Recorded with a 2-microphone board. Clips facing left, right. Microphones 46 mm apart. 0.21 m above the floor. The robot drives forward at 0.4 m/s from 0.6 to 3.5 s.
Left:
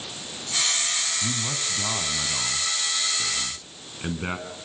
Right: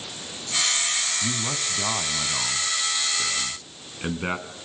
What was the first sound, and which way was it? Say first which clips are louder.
A man speaking: right 1 dB; 20° right (ahead or behind).